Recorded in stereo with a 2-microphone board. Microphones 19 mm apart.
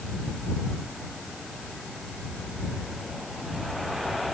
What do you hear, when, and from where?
Only background noise.